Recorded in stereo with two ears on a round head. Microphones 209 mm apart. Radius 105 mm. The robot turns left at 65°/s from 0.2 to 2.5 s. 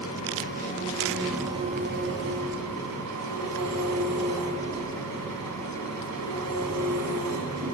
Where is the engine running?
70° left, 4 m; by 7.8 s 80° right, 4 m.